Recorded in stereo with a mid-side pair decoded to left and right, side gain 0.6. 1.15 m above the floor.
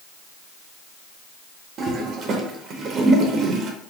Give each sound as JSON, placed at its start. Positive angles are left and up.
{"t": 1.8, "sound": "a toilet flushing", "azimuth_deg": -50, "distance_m": 0.7}